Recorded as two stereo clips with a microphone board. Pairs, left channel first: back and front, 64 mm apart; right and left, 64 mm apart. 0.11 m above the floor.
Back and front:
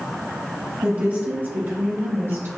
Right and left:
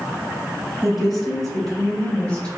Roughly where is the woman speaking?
Ahead.